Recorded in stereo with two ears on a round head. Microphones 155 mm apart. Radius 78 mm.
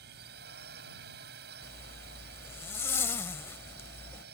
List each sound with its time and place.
0.0 s a drone: 65° right (ahead or behind)
1.6 s a zipper: 15° left (ahead or behind)